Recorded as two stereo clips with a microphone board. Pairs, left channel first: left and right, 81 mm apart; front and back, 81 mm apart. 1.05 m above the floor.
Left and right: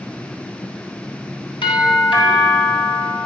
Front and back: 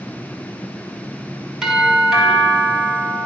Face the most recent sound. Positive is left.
turn(degrees=95)